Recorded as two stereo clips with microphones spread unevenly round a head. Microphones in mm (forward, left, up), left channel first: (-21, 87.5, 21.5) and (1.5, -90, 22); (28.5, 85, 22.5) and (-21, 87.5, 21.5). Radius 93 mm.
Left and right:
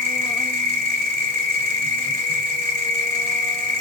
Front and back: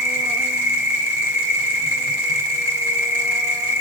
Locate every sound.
0.0 s an insect: 170° left, 1.2 m